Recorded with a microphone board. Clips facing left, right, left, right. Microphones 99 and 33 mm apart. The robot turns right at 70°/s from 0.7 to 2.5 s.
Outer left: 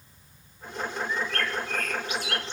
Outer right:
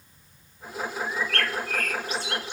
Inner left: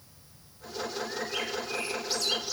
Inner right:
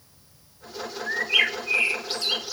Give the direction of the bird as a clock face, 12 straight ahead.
4 o'clock.